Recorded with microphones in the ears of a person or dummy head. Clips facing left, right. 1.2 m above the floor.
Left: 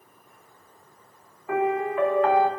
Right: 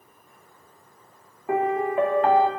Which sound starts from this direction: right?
A piano, at 1.5 s.